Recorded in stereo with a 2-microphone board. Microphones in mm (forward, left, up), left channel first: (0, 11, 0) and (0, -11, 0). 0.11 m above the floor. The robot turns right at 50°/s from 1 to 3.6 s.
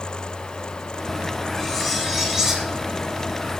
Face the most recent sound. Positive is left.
turn(degrees=-90)